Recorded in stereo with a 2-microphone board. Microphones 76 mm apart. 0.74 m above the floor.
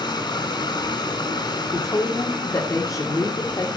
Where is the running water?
75° left (ahead or behind), 2.5 m.